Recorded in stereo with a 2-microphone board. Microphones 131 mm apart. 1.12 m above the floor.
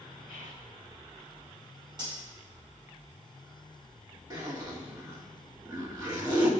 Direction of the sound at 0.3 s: 70° right (ahead or behind).